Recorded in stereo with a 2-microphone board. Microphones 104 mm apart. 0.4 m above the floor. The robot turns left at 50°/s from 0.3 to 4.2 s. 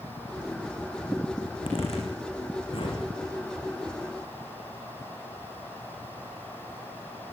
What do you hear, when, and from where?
1.4 s a zipper: 50° left (ahead or behind), 8.5 m; by 3.0 s 55° left (ahead or behind), 8.5 m